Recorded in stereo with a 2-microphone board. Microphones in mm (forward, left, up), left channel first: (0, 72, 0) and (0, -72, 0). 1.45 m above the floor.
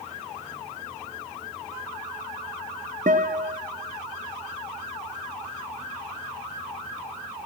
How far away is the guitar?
About 0.5 m.